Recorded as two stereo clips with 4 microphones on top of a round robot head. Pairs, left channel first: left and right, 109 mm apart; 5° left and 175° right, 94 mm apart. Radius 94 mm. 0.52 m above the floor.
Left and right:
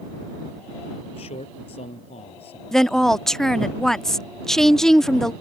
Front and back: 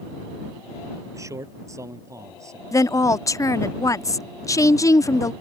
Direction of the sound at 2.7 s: 5° left.